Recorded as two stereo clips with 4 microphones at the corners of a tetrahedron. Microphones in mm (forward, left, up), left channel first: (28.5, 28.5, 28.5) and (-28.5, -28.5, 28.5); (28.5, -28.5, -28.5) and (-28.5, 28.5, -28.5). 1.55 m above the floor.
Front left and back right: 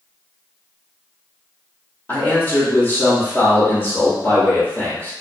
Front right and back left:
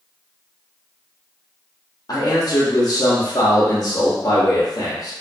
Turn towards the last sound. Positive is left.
turn(degrees=-15)